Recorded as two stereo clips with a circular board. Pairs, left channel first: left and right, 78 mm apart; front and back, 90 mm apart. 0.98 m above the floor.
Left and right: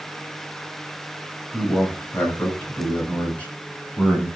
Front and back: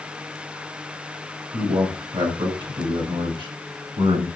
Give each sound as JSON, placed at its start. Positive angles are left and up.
{"t": 1.5, "sound": "a man speaking", "azimuth_deg": 155, "distance_m": 6.5}